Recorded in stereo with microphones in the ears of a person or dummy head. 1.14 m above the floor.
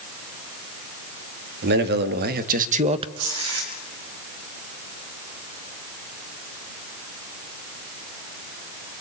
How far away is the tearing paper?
About 5.5 m.